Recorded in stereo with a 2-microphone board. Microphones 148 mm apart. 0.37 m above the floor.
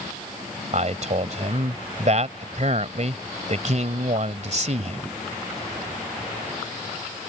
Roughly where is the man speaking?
Right.